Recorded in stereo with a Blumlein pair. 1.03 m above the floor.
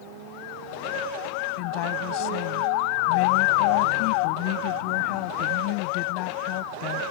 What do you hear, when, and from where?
1.6 s a woman speaking: 45° left